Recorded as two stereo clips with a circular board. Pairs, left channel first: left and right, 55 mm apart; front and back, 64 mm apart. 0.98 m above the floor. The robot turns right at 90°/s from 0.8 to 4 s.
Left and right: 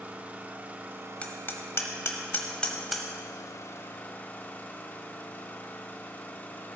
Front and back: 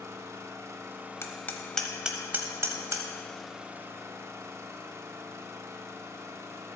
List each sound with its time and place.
0.0 s an engine running: 145° right, 0.8 m; by 6.8 s 140° left, 0.8 m
1.2 s hammering: 30° left, 1.1 m; by 3.1 s 165° right, 1.1 m